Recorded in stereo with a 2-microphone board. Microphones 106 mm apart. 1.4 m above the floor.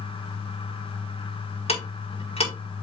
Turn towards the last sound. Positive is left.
turn(degrees=85)